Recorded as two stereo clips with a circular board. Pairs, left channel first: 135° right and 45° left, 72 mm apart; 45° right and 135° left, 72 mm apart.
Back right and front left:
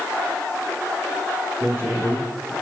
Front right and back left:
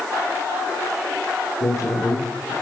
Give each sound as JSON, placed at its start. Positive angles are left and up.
{"t": 1.6, "sound": "a man speaking", "azimuth_deg": -10, "distance_m": 7.0}